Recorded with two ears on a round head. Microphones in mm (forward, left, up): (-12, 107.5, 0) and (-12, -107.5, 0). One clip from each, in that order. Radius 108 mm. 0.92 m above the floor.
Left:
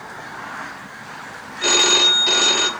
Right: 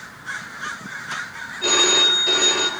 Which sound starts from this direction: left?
A phone ringing, at 1.6 s.